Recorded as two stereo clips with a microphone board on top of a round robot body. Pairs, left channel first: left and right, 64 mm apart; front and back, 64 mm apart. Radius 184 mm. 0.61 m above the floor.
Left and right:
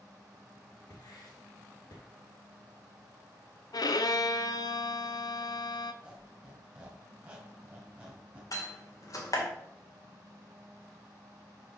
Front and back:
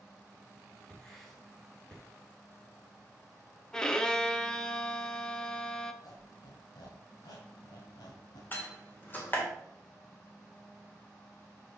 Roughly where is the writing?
Left.